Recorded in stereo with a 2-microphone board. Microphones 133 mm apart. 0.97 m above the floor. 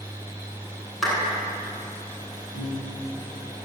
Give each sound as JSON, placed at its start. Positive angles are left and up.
{"t": 1.0, "sound": "a clap", "side_deg": 0, "distance_m": 9.5}
{"t": 2.5, "sound": "a piano", "side_deg": 85, "distance_m": 10.0}